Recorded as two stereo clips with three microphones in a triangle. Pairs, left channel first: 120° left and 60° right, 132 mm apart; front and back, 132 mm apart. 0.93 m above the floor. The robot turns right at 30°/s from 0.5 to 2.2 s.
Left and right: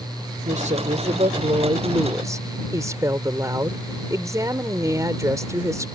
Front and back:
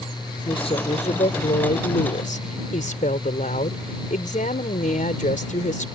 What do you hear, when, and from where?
0.5 s a woman speaking: 45° right; by 5.8 s 5° left